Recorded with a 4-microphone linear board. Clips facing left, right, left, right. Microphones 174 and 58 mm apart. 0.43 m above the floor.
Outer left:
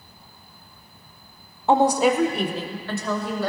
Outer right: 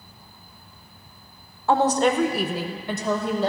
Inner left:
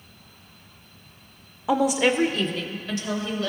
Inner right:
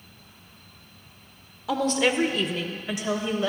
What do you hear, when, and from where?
1.7 s a woman speaking: 20° left (ahead or behind), 0.8 m; by 3.5 s 25° right (ahead or behind), 1.7 m